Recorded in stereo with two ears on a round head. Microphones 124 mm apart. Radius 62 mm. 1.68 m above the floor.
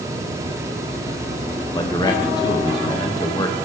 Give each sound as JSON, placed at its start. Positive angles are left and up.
{"t": 1.7, "sound": "a man speaking", "side_deg": 30, "distance_m": 0.6}